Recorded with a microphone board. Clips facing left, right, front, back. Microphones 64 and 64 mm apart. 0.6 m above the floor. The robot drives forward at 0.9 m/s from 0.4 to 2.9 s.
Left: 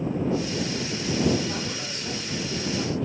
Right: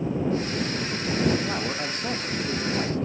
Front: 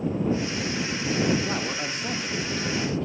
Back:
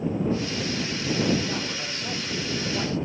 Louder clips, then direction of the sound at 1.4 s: Right 3 dB, front 2 dB; 40° right.